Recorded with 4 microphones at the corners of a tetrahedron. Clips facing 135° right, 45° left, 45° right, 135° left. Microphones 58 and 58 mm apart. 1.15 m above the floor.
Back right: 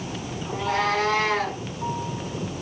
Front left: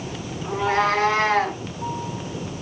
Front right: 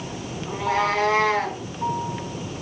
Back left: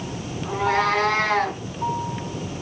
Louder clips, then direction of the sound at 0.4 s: Front left 4 dB, back left 2 dB; 95° left.